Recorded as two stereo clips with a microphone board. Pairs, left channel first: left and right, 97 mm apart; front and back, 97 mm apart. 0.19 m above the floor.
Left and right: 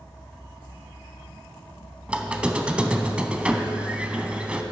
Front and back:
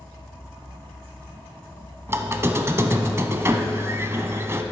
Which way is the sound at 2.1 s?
155° right.